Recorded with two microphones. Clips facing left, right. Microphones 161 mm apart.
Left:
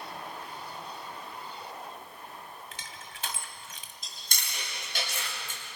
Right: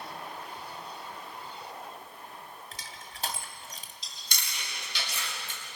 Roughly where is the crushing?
Right.